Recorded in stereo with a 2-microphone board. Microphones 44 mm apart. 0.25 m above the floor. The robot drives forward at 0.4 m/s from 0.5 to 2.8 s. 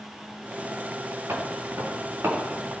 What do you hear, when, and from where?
1.3 s footsteps: 65° right (ahead or behind), 3.5 m; by 2.8 s 70° right (ahead or behind), 5 m